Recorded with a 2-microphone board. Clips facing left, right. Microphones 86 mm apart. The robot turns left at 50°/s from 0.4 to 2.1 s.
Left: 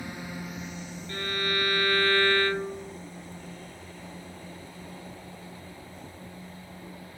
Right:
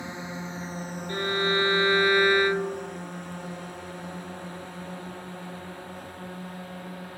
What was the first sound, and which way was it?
A drone, 20° right (ahead or behind).